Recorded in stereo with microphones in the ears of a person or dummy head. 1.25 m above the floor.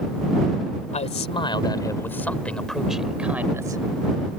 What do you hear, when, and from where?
0.9 s a man speaking: 30° left (ahead or behind); by 3.8 s 15° right (ahead or behind)